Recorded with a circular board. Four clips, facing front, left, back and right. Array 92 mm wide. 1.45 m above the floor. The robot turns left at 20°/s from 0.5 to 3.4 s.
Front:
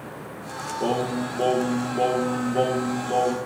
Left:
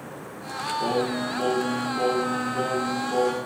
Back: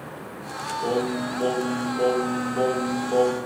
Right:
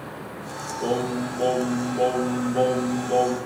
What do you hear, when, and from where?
0.8 s singing: 5° left, 1.2 m; by 3.4 s 45° right, 1.2 m